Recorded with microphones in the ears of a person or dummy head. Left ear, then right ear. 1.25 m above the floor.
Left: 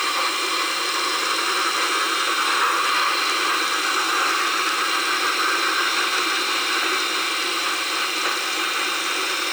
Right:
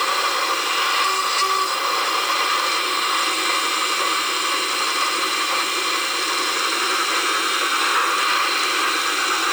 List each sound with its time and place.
Only background noise.